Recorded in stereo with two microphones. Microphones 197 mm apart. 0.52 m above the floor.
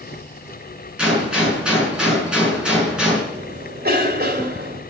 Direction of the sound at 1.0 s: 5° right (ahead or behind).